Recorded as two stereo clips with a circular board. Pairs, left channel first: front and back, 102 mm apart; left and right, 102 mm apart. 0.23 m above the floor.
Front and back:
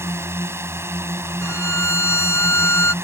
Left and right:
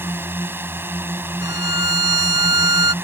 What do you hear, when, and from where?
0.0 s a drone: 140° right
1.4 s a violin: 55° right